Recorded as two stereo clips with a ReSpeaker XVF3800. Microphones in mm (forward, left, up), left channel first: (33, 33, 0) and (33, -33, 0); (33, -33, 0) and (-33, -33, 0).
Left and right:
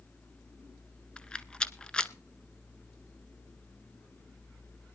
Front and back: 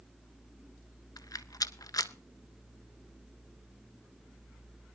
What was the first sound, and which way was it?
A rattle, 15° left.